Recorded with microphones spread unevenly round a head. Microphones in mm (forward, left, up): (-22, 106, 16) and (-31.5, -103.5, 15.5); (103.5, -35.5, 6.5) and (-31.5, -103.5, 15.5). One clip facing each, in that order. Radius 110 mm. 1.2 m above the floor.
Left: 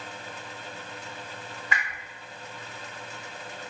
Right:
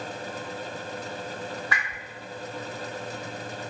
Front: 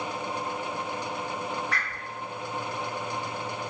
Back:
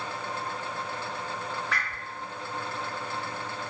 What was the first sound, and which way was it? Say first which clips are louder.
A whoosh: right 1 dB, even; 155° left.